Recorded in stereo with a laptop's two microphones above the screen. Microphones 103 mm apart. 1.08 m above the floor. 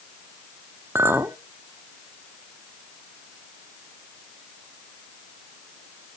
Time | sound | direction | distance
0.9 | a clink | 25° right (ahead or behind) | 1.0 m